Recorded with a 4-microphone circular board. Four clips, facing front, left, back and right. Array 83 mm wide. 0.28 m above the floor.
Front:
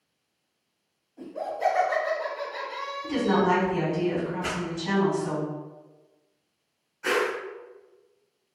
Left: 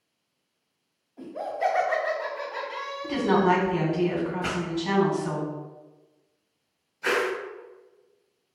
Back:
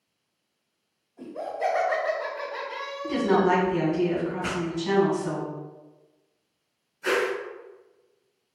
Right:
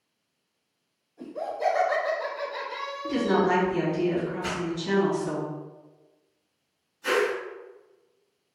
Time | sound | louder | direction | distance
1.2 | laughter | left 1 dB, front 1 dB | 70° left | 1.9 m
3.0 | a woman speaking | left 2 dB, back 1 dB | 75° left | 1.9 m
4.4 | a pop | left 2 dB, back 1 dB | 75° left | 1.7 m
7.0 | a whoosh | right 1 dB, back 1 dB | 70° left | 1.9 m